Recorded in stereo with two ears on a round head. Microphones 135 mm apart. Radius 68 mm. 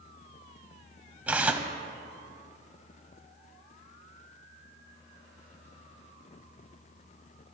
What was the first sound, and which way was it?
Tearing paper, 10° right (ahead or behind).